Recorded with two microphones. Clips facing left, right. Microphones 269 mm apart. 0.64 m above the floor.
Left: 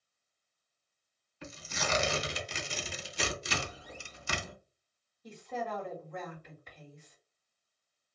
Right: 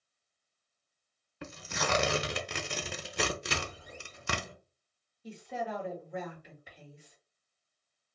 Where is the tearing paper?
65° right (ahead or behind), 0.5 m.